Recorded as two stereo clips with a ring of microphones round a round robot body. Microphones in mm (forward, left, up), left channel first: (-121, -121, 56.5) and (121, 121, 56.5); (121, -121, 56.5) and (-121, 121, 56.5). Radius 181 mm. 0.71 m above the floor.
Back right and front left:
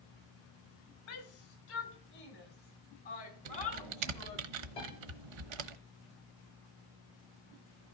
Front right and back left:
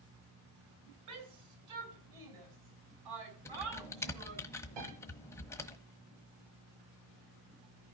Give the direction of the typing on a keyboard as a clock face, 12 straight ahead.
11 o'clock.